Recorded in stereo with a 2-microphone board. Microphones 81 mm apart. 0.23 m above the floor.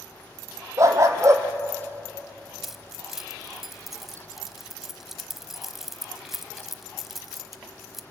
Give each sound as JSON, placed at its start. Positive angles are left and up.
{"t": 0.8, "sound": "a dog barking", "side_deg": -40, "distance_m": 2.0}
{"t": 2.6, "sound": "keys jangling", "side_deg": -5, "distance_m": 0.8}